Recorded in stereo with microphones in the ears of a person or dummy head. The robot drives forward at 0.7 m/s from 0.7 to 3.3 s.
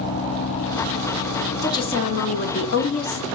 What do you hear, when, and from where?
1.6 s a woman speaking: 25° left (ahead or behind), 0.9 m; by 3.2 s 40° left (ahead or behind), 0.6 m